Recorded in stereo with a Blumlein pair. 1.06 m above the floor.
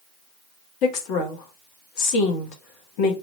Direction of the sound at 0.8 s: 40° left.